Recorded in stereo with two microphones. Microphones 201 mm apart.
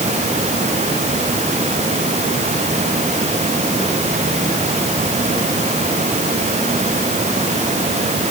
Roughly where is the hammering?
I don't hear hammering.